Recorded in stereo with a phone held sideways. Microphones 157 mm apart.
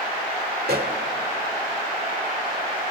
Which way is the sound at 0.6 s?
80° right.